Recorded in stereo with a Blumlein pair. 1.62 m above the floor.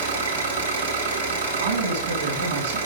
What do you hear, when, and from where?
0.0 s an engine running: 70° right, 2.5 m
1.6 s a man speaking: 60° right, 2.5 m